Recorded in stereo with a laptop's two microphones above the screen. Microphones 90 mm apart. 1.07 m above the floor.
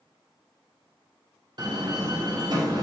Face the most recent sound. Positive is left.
turn(degrees=-45)  # may be behind; listen again after turning